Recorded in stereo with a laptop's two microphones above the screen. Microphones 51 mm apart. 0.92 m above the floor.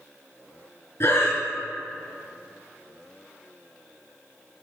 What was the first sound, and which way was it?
Breathing, 65° left (ahead or behind).